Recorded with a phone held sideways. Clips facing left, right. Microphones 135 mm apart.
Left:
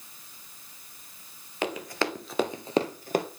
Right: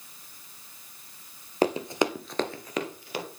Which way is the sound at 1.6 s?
35° right (ahead or behind).